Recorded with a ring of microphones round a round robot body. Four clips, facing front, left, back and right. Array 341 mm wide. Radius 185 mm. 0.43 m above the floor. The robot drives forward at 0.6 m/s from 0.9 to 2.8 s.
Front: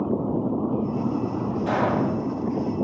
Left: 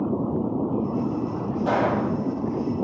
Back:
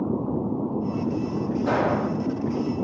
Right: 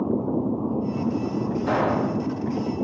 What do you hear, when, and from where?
1.7 s a gunshot: 95° left, 1.9 m; by 2.1 s 105° left, 2.0 m